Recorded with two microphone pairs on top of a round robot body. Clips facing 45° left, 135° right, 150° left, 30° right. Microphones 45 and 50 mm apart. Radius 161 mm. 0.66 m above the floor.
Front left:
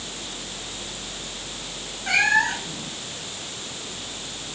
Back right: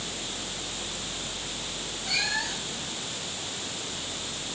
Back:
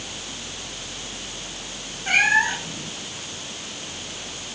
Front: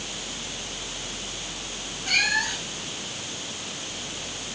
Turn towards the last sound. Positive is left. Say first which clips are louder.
# front left 11 dB, back 6 dB
turn(degrees=90)